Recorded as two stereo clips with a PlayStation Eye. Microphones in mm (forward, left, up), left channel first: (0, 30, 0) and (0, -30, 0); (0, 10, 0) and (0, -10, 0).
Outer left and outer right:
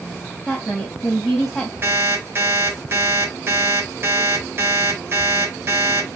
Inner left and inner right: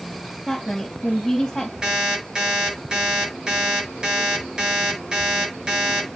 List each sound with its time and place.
0.5 s a woman speaking: centre (ahead or behind), 1.8 m
1.8 s an alarm clock: 45° right (ahead or behind), 4.5 m